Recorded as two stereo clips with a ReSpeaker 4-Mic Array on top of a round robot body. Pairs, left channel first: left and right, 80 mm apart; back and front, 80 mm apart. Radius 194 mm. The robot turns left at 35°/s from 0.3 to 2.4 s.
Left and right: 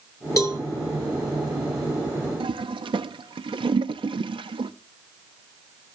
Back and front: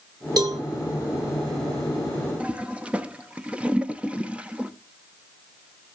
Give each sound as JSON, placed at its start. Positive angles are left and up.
{"t": 0.4, "sound": "a cowbell", "azimuth_deg": 40, "distance_m": 0.6}
{"t": 2.4, "sound": "a toilet flushing", "azimuth_deg": -75, "distance_m": 0.6}